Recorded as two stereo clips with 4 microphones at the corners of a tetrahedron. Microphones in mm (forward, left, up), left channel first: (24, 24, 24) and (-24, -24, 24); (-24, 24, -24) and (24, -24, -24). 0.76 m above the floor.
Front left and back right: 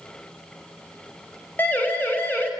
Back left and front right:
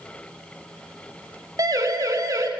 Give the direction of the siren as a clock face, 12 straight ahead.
1 o'clock.